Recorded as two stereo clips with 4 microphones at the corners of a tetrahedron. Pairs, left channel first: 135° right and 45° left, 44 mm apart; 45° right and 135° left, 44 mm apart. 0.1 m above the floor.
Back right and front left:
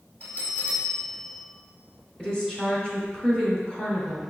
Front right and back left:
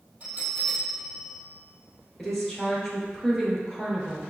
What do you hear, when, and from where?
0.2 s a bell: 175° left, 1.3 m
2.2 s a woman speaking: 140° right, 1.4 m